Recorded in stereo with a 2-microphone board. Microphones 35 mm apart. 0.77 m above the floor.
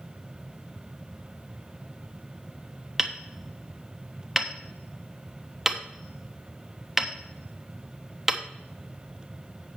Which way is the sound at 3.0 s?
10° right (ahead or behind).